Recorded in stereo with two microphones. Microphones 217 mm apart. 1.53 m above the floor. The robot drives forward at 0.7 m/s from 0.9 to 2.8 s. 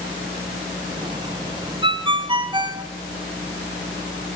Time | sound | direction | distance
1.8 | a ringtone | 25° right (ahead or behind) | 0.7 m